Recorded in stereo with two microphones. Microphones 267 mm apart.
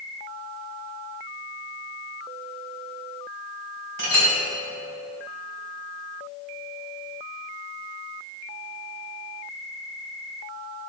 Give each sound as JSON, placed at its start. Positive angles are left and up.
{"t": 4.0, "sound": "a clink", "side_deg": -85, "distance_m": 3.0}